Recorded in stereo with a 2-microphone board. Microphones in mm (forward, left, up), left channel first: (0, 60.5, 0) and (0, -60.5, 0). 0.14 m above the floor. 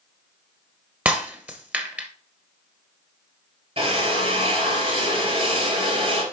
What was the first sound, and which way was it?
Breaking glass, 15° right (ahead or behind).